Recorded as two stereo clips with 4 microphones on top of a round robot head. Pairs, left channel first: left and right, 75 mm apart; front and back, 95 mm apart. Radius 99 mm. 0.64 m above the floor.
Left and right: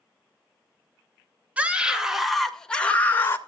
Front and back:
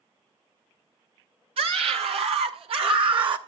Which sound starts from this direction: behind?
A scream, at 1.6 s.